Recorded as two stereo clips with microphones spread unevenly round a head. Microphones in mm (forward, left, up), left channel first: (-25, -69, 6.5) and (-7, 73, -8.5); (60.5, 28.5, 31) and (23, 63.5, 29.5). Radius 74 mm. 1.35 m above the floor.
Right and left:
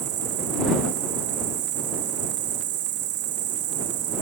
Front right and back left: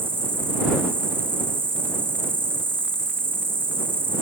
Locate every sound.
0.0 s an insect: 90° left